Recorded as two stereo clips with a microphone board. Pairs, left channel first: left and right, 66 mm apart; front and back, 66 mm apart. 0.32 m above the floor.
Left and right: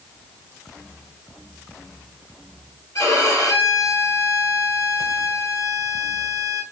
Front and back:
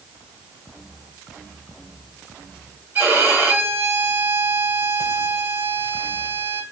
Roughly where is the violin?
Behind left.